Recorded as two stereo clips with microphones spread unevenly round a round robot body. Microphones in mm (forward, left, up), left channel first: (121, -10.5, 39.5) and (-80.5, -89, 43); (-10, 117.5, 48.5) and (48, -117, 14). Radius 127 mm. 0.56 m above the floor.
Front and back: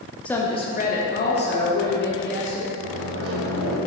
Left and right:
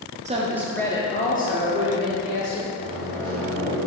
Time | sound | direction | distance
0.2 | a woman speaking | 60° right | 0.8 m
2.8 | a microwave | 145° right | 1.6 m